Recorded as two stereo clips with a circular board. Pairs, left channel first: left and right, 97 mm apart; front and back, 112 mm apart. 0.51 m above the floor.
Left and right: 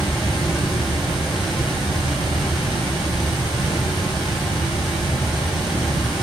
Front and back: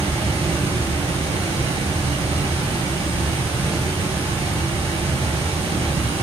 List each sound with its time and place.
0.0 s running water: straight behind, 1.5 m